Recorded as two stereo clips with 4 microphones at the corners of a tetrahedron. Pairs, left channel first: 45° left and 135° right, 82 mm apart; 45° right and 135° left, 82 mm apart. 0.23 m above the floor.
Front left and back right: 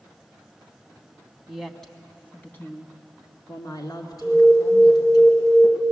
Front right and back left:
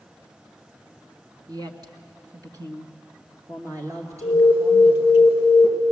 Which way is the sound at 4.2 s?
175° right.